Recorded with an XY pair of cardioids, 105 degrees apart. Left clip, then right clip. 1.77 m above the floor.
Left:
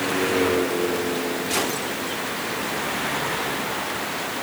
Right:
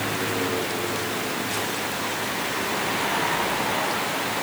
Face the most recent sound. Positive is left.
No sound to turn to.